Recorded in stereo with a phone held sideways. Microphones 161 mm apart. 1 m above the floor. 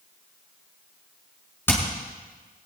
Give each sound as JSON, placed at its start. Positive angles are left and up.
{"t": 1.7, "sound": "hammering", "side_deg": 15, "distance_m": 6.5}